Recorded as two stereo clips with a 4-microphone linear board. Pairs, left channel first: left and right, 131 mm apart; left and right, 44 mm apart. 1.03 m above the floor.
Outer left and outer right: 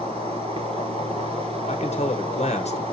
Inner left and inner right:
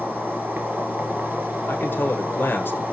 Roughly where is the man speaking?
Left.